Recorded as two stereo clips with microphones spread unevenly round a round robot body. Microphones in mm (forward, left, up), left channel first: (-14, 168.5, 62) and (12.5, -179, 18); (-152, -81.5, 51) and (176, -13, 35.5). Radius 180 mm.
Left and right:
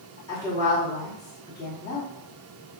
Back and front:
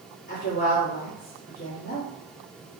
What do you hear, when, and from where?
0.3 s a woman speaking: 175° left, 1.4 m